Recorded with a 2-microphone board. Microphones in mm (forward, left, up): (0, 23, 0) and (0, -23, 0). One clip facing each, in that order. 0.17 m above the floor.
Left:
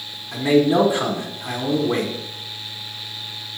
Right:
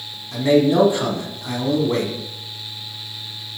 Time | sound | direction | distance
0.3 | a man speaking | 15° left (ahead or behind) | 1.2 m